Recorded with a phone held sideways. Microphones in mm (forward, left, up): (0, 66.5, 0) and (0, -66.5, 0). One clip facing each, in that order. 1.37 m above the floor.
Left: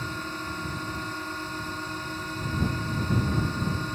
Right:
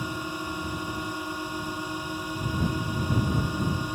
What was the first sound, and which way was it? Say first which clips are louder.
A drone: right 2 dB; 10° right (ahead or behind).